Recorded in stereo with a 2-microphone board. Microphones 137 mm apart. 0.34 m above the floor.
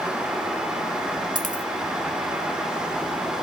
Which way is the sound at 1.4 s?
70° left (ahead or behind).